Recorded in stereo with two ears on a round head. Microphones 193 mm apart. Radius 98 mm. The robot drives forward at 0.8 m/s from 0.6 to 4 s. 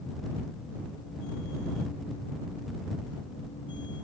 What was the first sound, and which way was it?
Only background noise.